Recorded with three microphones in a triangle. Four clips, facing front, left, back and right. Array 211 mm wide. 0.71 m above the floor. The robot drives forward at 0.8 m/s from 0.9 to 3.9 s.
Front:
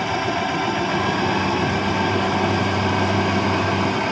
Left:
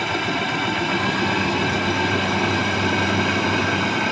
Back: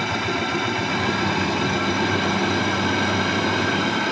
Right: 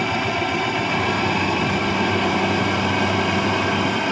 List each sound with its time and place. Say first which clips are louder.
0.0 s a drone: right 1 dB, front 2 dB; 30° right